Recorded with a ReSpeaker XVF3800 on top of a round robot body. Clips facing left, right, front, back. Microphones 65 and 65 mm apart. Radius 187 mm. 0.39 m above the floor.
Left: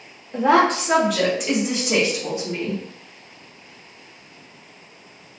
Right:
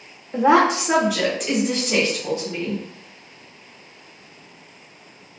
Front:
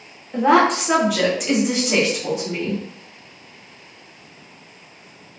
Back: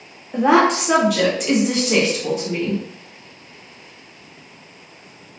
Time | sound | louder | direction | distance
0.3 | a woman speaking | right 1 dB, back 1 dB | 110° right | 1.4 m